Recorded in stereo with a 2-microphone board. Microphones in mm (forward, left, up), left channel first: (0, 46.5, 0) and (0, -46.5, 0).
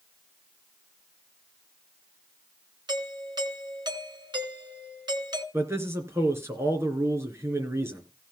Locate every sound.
2.9 s a doorbell: 50° right (ahead or behind), 2.5 m
5.5 s a man speaking: 25° right (ahead or behind), 3 m